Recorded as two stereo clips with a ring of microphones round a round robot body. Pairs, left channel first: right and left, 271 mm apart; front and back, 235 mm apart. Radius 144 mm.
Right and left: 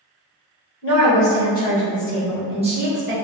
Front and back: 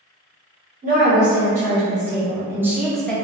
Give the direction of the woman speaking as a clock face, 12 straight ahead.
4 o'clock.